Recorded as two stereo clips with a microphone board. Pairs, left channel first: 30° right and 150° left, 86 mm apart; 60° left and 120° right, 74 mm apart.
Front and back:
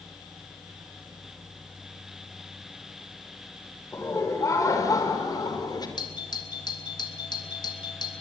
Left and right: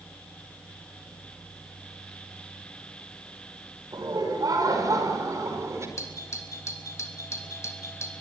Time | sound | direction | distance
3.9 | laughter | 85° right | 6 m
6.0 | a doorbell | 5° left | 3 m